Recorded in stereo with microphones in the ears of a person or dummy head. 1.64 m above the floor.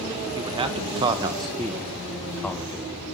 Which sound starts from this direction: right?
A man speaking, at 0.4 s.